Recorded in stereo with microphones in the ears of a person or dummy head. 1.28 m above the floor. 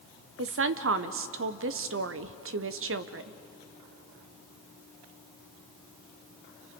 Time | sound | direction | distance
0.4 | a woman speaking | 55° right (ahead or behind) | 0.6 m